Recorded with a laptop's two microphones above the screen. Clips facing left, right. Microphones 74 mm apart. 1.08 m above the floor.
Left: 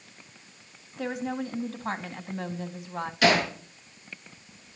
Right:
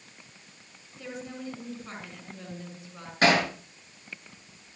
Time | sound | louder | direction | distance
1.0 | a woman speaking | left 8 dB | 70° left (ahead or behind) | 2 m
3.2 | hammering | even | 40° right (ahead or behind) | 7 m